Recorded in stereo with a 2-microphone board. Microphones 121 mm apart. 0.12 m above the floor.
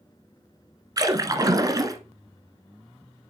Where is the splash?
30° right (ahead or behind), 0.9 m.